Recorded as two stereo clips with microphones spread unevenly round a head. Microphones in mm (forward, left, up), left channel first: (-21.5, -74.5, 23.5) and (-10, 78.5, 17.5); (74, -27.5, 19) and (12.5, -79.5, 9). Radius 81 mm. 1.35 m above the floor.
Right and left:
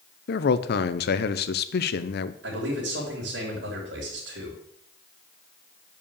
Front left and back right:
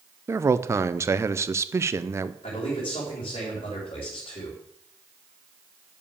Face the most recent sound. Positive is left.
turn(degrees=85)